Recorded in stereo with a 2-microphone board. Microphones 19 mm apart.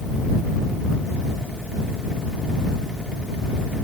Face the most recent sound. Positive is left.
No sound to turn to.